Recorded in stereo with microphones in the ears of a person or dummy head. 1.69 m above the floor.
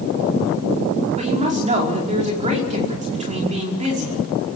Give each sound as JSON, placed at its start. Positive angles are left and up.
{"t": 1.2, "sound": "a woman speaking", "side_deg": -40, "distance_m": 5.0}